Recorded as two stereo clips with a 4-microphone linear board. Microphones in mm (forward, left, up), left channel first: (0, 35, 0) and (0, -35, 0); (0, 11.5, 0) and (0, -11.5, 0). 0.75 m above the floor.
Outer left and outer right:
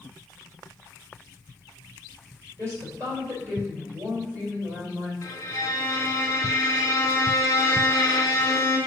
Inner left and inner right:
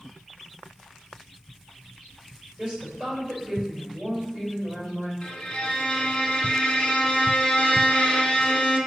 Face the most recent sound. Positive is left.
turn(degrees=50)  # may be behind; listen again after turning